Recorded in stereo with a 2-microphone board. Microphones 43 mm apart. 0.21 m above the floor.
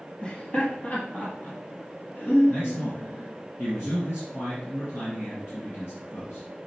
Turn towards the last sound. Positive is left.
turn(degrees=65)  # may be behind; listen again after turning